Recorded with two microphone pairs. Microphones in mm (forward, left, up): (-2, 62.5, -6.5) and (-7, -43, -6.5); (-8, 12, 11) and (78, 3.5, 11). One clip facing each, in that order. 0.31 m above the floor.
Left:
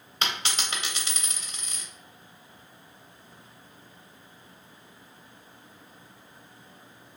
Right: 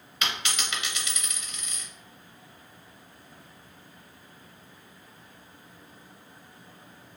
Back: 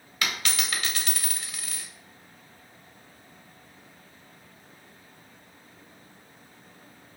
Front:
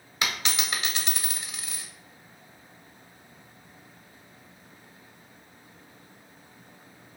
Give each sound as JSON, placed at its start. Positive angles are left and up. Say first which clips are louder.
{"t": 0.2, "sound": "a dropped coin", "louder": "left 1 dB, even", "azimuth_deg": 50, "distance_m": 0.6}